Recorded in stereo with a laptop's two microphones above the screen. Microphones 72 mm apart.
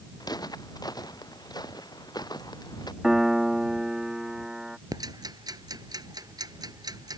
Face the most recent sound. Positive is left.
turn(degrees=-65)  # may be behind; listen again after turning